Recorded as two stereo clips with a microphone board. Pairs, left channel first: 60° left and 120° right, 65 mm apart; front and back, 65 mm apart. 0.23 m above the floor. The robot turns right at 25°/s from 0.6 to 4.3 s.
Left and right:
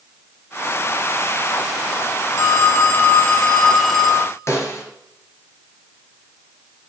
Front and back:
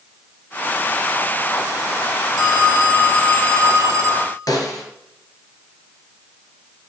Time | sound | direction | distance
2.4 | a phone ringing | 105° left | 1.8 m
4.5 | a snare drum | 15° left | 3 m